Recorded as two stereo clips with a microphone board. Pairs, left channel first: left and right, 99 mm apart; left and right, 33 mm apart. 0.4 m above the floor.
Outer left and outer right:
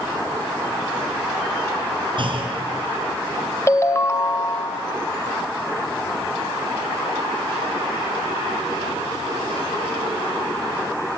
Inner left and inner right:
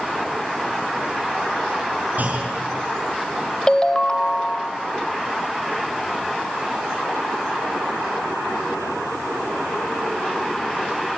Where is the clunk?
55° right (ahead or behind), 4.5 m.